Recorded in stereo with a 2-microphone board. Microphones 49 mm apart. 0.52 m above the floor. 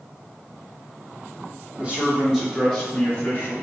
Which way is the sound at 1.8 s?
25° right (ahead or behind).